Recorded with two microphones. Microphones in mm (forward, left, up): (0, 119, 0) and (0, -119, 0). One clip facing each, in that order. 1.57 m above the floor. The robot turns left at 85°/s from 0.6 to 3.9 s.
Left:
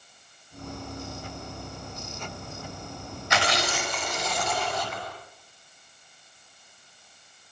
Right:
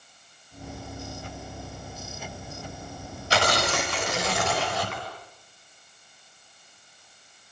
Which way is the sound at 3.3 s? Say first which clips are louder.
Right 3 dB; 35° right.